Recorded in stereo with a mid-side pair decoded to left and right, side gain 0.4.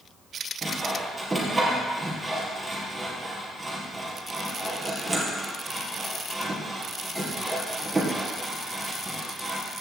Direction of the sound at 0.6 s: 15° right.